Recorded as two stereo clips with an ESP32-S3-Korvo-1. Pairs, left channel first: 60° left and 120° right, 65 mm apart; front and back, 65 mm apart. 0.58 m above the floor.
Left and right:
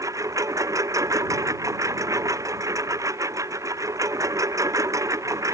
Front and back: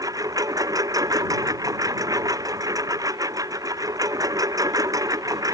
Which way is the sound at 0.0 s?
155° right.